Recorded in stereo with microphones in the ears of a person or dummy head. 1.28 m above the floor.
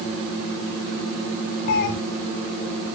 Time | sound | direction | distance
1.7 | a cat meowing | 55° left (ahead or behind) | 0.8 m